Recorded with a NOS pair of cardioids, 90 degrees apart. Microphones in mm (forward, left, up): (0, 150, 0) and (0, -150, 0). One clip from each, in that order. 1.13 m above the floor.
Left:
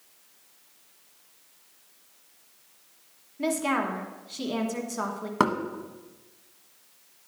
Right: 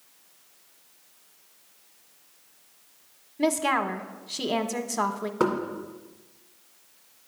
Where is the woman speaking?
35° right, 1.1 m.